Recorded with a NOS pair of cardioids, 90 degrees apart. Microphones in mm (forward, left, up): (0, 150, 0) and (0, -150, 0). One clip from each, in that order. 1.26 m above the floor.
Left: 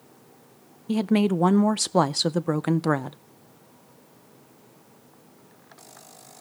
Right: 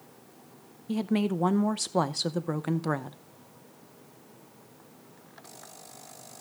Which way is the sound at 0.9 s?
25° left.